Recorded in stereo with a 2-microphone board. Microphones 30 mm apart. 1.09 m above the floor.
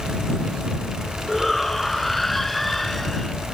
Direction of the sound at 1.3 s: 10° left (ahead or behind).